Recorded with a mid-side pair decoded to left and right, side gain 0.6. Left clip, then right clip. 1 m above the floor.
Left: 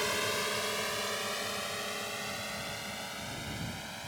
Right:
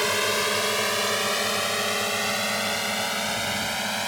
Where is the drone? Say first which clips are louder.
Right 8 dB; 40° right; by 4.1 s 60° right.